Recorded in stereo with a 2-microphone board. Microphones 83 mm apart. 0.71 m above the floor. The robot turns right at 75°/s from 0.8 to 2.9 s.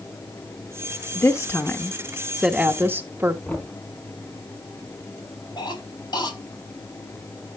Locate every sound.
1.1 s a woman speaking: 100° left, 1.0 m; by 3.4 s 130° right, 1.0 m
3.5 s knocking: 25° left (ahead or behind), 5 m
5.6 s a cough: 60° left (ahead or behind), 4 m